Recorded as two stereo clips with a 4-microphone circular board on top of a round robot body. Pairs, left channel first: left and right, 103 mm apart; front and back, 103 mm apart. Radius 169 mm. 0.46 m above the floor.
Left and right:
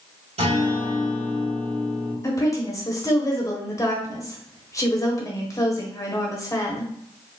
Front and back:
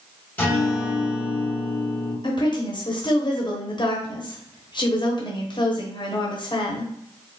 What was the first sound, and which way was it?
A guitar, 75° right.